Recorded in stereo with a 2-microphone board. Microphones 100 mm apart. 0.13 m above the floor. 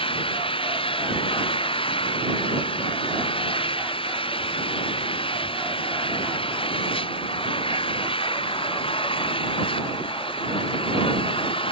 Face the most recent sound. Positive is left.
turn(degrees=60)  # may be behind; listen again after turning